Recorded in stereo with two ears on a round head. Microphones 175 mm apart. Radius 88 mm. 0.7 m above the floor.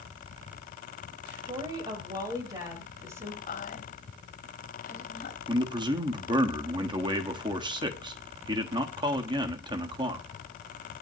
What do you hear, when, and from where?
1.4 s a woman speaking: 25° right (ahead or behind), 4.5 m; by 3.4 s 15° right (ahead or behind), 5 m
3.5 s a woman speaking: 45° left (ahead or behind), 4 m
5.5 s a man speaking: 25° right (ahead or behind), 1.2 m